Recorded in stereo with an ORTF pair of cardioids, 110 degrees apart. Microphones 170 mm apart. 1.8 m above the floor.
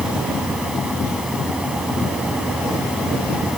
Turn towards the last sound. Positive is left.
turn(degrees=-5)